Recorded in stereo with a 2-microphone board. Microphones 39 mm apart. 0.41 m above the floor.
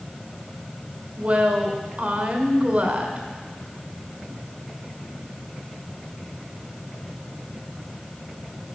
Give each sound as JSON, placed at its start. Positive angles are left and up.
{"t": 1.2, "sound": "a woman speaking", "side_deg": -35, "distance_m": 1.4}